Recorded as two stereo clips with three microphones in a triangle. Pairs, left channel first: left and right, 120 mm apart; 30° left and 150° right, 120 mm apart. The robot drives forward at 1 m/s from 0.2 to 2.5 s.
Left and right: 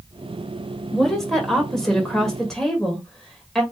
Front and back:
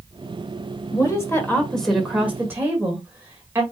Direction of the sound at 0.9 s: 5° left.